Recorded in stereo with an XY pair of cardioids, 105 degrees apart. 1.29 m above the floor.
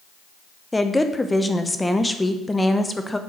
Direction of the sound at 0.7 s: 10° left.